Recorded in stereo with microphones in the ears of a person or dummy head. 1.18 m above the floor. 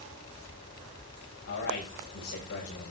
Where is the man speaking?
60° left (ahead or behind), 8 m.